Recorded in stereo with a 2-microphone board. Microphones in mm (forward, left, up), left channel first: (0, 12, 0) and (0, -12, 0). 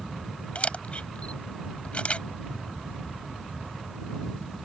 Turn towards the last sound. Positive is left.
turn(degrees=55)  # may be behind; listen again after turning